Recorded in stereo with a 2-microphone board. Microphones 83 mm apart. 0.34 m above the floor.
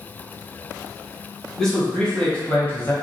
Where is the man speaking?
10° left (ahead or behind), 2.0 m; by 2.9 s 30° left (ahead or behind), 1.4 m.